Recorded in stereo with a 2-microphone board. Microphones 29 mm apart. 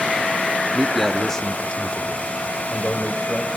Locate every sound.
0.7 s a man speaking: 20° right (ahead or behind), 0.6 m; by 3.5 s 60° left (ahead or behind), 1.9 m